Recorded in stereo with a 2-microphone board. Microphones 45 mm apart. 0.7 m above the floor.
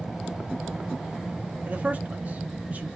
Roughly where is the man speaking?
Right.